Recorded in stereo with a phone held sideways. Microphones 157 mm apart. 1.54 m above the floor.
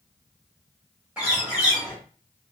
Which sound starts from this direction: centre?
A bird, at 1.2 s.